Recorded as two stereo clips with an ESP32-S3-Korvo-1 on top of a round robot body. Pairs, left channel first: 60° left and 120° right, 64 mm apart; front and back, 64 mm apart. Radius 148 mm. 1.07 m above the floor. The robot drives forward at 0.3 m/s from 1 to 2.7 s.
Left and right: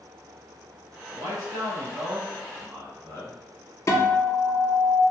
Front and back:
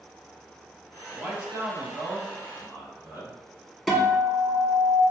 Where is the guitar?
95° left, 1.2 m.